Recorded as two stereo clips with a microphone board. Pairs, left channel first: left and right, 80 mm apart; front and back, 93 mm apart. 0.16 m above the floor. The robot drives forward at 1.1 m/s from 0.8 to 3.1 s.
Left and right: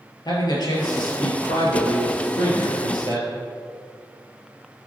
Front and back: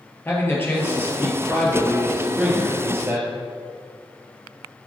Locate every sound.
0.2 s a man speaking: 65° left, 3 m; by 3.4 s 115° left, 3 m